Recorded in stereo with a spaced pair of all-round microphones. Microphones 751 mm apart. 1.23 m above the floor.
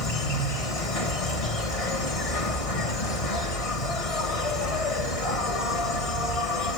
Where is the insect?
50° left (ahead or behind), 1.4 m.